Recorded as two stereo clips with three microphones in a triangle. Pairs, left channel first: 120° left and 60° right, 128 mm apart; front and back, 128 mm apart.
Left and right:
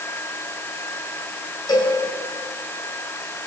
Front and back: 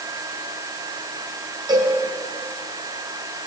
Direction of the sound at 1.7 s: 150° left.